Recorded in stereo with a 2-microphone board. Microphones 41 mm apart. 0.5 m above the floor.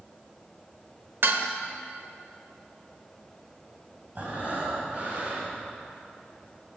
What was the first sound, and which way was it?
Dishes clattering, 65° right (ahead or behind).